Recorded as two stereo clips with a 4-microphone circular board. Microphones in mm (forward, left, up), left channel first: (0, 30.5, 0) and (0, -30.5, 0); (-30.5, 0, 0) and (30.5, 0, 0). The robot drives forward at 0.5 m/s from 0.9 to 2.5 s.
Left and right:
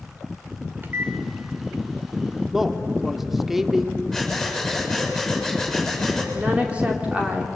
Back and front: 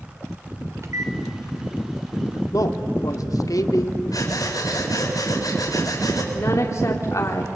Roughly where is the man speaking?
Behind.